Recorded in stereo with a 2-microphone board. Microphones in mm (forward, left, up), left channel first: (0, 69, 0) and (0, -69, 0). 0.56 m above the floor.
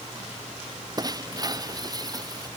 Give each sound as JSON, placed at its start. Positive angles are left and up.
{"t": 1.0, "sound": "breaking glass", "side_deg": -30}